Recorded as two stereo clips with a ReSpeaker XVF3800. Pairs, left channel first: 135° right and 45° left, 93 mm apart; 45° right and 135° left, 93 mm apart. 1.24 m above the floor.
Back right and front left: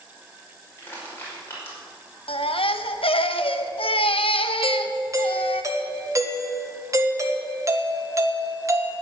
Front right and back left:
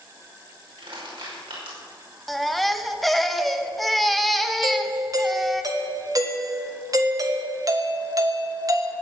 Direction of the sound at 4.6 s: 95° left.